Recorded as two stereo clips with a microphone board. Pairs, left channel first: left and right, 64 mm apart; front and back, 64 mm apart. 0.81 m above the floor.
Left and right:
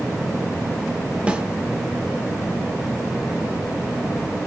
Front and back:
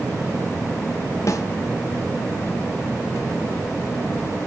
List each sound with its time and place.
1.3 s a snare drum: 20° right, 1.6 m